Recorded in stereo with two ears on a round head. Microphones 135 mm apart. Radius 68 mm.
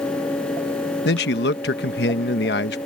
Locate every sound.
1.1 s a man speaking: 80° left